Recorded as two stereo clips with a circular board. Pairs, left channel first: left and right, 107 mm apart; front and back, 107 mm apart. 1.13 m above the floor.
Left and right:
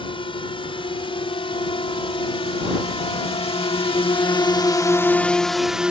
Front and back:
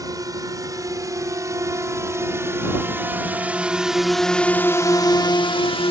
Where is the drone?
125° left; by 5.9 s 10° right.